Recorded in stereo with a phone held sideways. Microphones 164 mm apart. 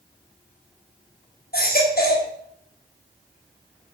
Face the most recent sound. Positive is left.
turn(degrees=70)  # may be behind; listen again after turning